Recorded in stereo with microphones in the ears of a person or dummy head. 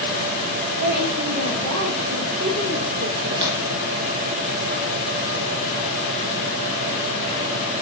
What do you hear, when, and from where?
0.8 s a woman speaking: 50° right (ahead or behind), 0.8 m; by 3.5 s 80° right, 2 m
3.4 s tapping: 30° right (ahead or behind), 3 m